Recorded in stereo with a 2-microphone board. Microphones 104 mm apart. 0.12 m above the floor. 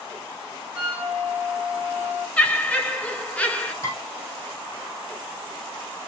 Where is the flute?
15° right (ahead or behind), 2.0 m.